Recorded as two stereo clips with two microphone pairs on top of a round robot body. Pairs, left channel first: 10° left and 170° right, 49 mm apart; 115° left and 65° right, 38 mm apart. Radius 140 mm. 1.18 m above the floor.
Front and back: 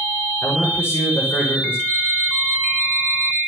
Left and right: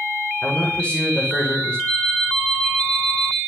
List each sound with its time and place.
0.4 s a man speaking: 55° left, 6.5 m
1.9 s an alarm clock: 60° left, 9.5 m